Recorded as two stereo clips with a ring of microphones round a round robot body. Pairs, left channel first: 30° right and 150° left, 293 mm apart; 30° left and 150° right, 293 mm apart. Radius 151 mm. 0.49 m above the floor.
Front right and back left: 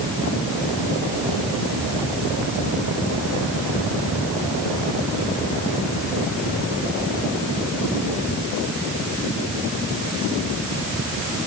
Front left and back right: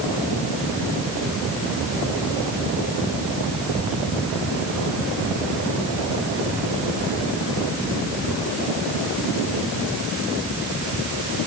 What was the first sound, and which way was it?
Only background noise.